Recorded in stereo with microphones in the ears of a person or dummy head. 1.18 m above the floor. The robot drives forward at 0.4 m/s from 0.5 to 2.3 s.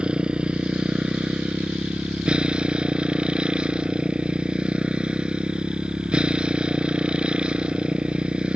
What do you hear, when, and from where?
0.0 s a motorcycle: centre (ahead or behind)